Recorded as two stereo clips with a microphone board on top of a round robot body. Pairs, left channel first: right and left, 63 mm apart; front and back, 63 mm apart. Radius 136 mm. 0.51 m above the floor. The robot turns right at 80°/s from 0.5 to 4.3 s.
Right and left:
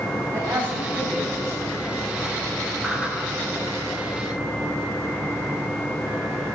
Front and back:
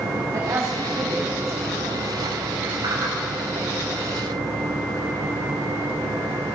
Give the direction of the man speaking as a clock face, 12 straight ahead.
7 o'clock.